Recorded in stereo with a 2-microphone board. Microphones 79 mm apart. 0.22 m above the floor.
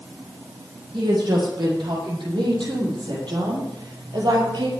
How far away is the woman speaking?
About 9.5 m.